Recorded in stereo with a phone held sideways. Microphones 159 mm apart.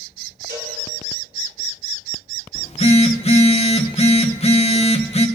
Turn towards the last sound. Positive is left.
turn(degrees=40)  # may be behind; listen again after turning